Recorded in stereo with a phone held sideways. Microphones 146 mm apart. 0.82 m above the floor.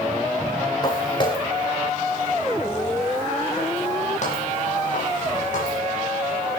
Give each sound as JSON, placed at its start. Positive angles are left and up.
{"t": 0.8, "sound": "footsteps", "side_deg": 30, "distance_m": 4.0}